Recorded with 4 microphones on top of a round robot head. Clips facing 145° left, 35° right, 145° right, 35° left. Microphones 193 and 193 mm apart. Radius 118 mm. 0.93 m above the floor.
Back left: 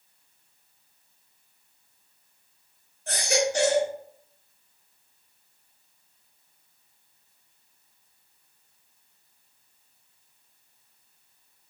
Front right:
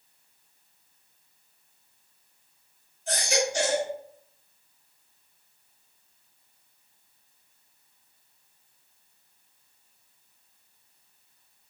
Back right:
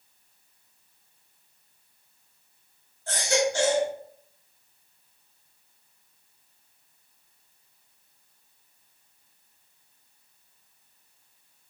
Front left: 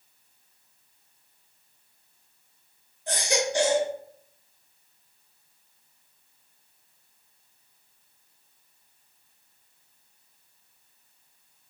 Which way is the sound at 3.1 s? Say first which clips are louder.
Back left 2 dB, back right 2 dB; 105° left.